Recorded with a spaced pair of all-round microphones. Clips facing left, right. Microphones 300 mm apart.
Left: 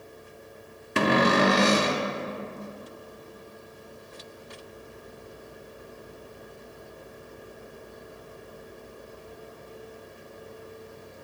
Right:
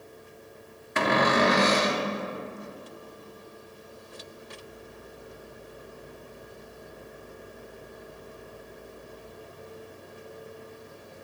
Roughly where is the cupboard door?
Left.